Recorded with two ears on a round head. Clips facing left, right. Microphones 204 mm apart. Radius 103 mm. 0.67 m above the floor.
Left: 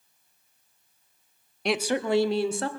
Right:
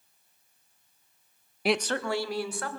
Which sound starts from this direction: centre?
A woman speaking, at 1.6 s.